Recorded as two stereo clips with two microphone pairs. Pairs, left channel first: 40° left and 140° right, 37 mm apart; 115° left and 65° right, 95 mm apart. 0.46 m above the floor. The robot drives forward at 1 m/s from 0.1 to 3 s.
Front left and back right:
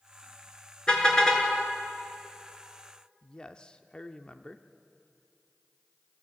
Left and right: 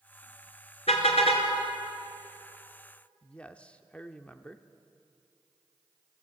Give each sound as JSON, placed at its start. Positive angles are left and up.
{"t": 0.9, "sound": "a car horn", "azimuth_deg": 110, "distance_m": 3.0}
{"t": 3.2, "sound": "a man speaking", "azimuth_deg": 55, "distance_m": 0.7}